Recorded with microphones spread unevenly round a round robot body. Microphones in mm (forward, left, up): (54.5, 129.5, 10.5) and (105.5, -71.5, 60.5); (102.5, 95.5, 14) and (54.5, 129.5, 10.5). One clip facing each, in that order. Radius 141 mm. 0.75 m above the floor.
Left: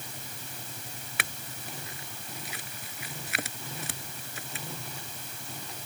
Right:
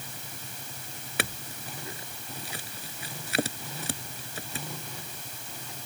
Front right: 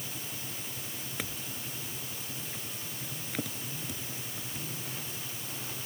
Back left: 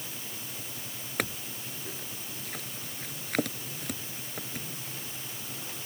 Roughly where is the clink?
Behind right.